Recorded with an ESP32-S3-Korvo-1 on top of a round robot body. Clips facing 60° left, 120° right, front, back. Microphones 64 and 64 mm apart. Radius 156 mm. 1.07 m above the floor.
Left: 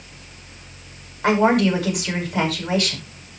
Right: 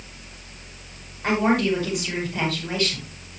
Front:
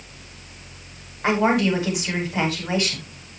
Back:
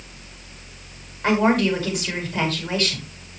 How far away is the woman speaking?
About 9 m.